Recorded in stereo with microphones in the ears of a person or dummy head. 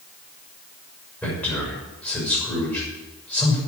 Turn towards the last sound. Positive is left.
turn(degrees=10)  # may be behind; listen again after turning